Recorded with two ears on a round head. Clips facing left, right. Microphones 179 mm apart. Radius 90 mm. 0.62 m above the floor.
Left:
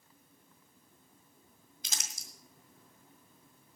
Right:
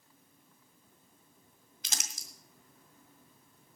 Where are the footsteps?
I don't hear footsteps.